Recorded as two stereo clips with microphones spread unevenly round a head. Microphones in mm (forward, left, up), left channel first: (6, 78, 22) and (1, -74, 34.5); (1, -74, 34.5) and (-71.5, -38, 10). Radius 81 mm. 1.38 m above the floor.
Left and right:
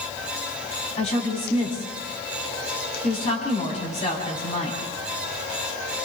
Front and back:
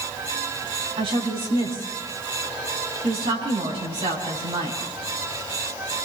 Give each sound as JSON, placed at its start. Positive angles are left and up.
{"t": 1.0, "sound": "a woman speaking", "azimuth_deg": 140, "distance_m": 9.0}